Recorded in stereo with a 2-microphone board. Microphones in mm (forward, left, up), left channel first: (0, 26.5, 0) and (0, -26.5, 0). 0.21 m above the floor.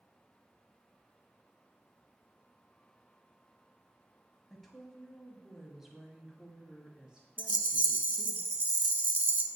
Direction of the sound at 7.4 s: 35° right (ahead or behind).